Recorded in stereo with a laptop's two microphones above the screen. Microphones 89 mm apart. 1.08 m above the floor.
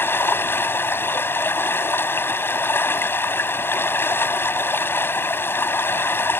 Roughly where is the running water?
Left.